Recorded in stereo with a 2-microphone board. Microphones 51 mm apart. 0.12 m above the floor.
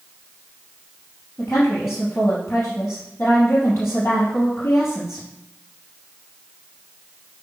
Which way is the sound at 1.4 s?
60° left (ahead or behind).